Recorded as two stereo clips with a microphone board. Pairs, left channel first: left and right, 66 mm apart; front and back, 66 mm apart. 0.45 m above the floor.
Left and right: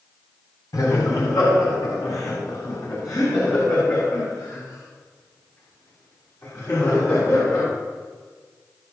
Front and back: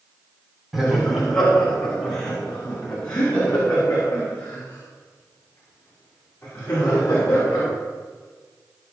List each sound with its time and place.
0.7 s laughter: 90° left, 4 m; by 7.6 s 60° left, 9 m